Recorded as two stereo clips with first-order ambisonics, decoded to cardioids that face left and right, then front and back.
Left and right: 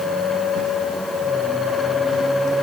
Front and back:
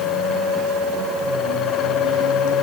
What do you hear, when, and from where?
Only background noise.